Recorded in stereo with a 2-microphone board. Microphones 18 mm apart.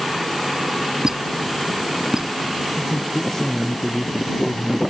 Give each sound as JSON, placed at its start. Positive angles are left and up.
{"t": 1.0, "sound": "a squeak", "side_deg": -30}
{"t": 2.8, "sound": "a man speaking", "side_deg": 30}